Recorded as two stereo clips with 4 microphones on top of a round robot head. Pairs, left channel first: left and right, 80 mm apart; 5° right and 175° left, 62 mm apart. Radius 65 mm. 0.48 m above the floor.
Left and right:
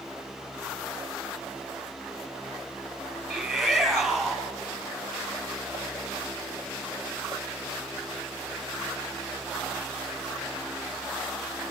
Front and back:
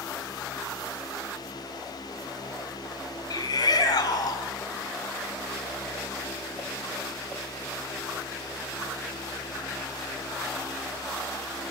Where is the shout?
5° left, 5.5 m.